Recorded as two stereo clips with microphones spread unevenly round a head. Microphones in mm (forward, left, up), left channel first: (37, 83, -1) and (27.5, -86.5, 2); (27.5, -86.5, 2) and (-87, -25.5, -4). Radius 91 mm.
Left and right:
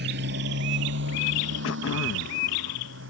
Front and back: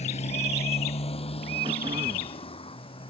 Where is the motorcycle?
65° right; by 3.1 s 75° right.